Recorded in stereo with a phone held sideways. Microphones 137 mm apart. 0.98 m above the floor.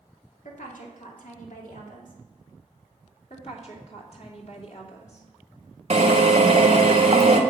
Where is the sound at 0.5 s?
75° left (ahead or behind), 2.5 m.